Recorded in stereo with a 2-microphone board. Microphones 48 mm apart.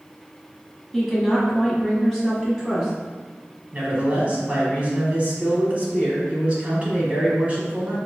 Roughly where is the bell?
I don't hear a bell.